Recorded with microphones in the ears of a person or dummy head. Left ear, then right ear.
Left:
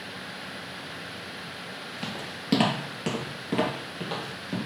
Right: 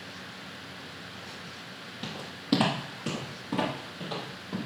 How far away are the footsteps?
About 1.9 m.